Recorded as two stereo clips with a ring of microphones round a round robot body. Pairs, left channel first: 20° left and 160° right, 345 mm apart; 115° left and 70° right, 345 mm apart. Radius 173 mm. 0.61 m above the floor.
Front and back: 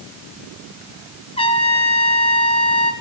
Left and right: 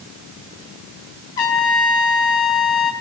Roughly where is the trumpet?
Left.